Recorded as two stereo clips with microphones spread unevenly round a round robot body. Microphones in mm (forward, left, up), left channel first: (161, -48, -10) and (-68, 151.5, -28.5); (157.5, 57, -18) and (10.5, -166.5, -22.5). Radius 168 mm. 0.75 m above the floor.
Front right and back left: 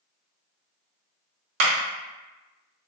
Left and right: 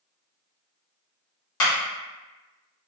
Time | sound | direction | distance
1.6 | a clap | 100° left | 0.7 m